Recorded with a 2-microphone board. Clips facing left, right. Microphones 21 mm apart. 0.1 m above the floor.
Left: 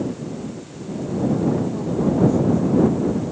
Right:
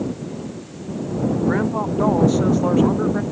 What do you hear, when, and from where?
1.5 s a woman speaking: 65° right (ahead or behind); by 3.2 s 75° right (ahead or behind)